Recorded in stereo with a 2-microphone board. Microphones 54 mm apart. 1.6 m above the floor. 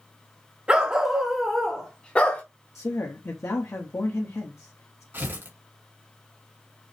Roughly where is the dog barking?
Right.